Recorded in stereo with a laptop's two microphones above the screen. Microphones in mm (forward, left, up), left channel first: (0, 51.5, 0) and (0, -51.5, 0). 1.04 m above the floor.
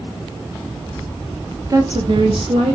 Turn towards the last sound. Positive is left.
turn(degrees=-80)